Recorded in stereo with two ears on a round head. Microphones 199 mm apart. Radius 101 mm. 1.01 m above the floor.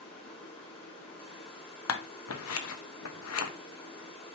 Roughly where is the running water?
Left.